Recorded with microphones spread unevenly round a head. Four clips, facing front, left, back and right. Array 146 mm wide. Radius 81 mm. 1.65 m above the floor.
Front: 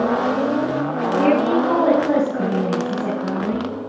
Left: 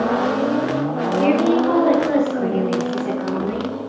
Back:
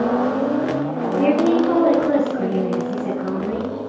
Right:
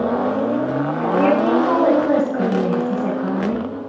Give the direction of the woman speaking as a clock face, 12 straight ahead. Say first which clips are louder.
Right 1 dB, back 1 dB; 3 o'clock.